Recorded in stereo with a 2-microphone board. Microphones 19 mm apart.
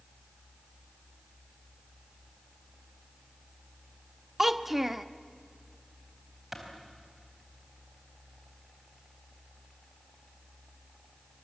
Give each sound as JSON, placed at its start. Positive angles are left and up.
{"t": 4.4, "sound": "a child speaking", "side_deg": -15, "distance_m": 0.8}
{"t": 6.5, "sound": "a clap", "side_deg": -15, "distance_m": 4.0}